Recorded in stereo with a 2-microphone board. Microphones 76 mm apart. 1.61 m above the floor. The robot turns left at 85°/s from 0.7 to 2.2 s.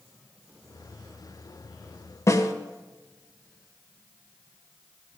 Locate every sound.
2.3 s a snare drum: 40° left (ahead or behind), 1.5 m